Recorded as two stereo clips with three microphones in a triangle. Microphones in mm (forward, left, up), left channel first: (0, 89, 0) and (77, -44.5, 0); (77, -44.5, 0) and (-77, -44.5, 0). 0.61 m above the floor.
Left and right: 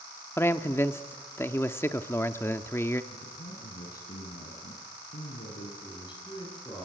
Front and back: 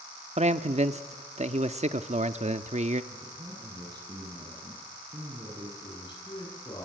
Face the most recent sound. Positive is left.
turn(degrees=60)